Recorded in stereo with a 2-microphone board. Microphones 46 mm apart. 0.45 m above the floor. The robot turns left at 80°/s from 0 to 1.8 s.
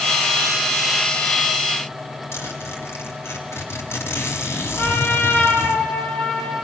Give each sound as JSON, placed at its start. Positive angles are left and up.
{"t": 2.3, "sound": "a zipper", "side_deg": 60, "distance_m": 4.0}
{"t": 4.8, "sound": "a trumpet", "side_deg": 40, "distance_m": 5.0}